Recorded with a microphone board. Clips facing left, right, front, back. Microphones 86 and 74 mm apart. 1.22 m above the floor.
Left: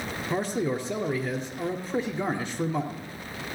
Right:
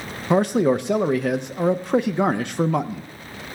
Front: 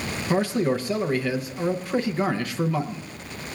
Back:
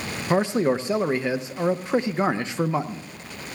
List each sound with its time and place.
0.3 s a man speaking: 115° right, 0.5 m